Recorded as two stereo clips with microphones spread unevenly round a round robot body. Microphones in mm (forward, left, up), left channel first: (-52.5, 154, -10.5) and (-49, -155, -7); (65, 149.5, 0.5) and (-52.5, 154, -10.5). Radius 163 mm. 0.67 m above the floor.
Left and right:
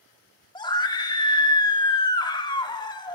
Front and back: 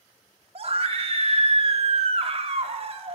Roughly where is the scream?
Behind.